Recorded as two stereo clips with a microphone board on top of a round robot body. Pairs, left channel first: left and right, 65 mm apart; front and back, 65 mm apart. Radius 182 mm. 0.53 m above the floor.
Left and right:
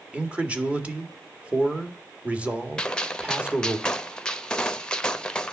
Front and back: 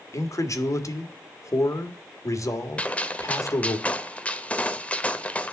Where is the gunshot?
35° left, 1.1 m.